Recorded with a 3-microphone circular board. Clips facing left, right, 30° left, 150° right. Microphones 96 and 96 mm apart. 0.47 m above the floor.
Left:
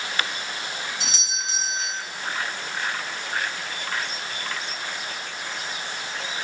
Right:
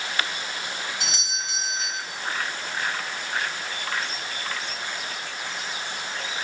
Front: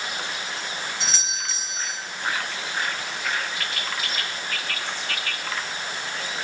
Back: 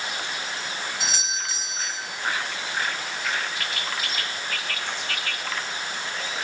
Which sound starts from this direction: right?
A doorbell, at 1.0 s.